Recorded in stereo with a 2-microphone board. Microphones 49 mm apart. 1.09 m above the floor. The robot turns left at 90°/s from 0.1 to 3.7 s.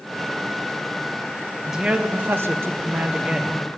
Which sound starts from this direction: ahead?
A man speaking, at 1.7 s.